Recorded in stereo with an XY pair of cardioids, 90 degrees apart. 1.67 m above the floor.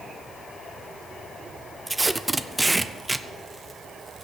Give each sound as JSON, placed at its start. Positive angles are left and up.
{"t": 1.9, "sound": "tape being pulled", "azimuth_deg": -20, "distance_m": 0.6}